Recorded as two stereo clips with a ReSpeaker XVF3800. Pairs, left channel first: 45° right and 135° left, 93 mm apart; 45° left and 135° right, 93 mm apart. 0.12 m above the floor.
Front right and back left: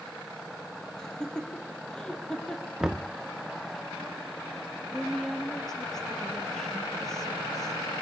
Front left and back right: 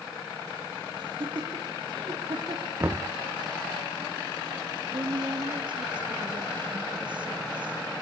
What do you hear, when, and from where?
1.0 s laughter: 125° right, 3.5 m
2.8 s knocking: 145° right, 0.8 m
4.9 s a woman speaking: 130° right, 3 m